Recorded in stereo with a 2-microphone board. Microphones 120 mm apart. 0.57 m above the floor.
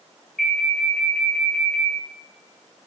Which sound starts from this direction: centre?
An alarm, at 0.4 s.